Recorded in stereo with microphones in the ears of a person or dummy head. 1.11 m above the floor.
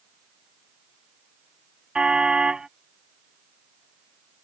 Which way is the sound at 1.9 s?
5° right (ahead or behind).